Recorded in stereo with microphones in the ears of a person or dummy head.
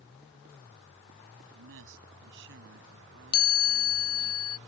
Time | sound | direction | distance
1.5 | a man speaking | 70° right (ahead or behind) | ?
3.3 | a chime | 25° left (ahead or behind) | ?